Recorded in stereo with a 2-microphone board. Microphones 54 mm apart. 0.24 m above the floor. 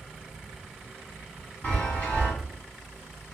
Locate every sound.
1.6 s a chime: 35° left (ahead or behind), 1.4 m